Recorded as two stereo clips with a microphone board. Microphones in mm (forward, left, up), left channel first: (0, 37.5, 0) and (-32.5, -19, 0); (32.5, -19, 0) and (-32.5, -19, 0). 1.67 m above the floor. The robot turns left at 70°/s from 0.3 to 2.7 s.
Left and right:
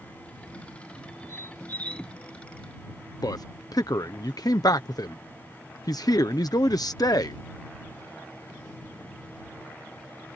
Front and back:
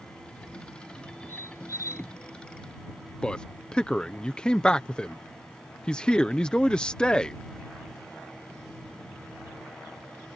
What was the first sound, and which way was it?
A squeak, 35° left.